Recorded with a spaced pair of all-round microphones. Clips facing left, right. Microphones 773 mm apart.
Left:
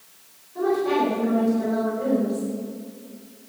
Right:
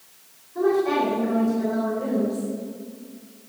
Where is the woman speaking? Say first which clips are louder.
Right 1 dB; 20° left (ahead or behind), 5.5 m.